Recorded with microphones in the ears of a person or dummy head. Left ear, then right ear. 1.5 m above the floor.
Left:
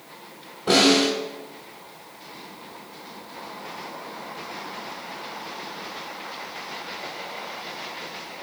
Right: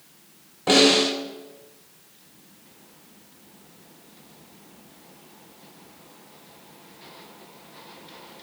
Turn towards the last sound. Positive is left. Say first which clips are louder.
# right 1 dB
turn(degrees=-30)  # may be behind; listen again after turning